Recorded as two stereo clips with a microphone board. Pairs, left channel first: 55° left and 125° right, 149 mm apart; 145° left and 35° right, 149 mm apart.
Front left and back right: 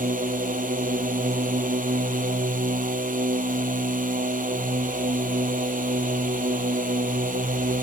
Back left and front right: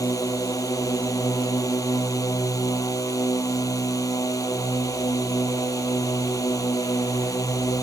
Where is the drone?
145° right.